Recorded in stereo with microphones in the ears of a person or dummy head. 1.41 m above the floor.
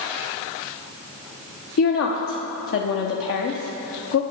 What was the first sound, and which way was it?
A woman speaking, 75° left (ahead or behind).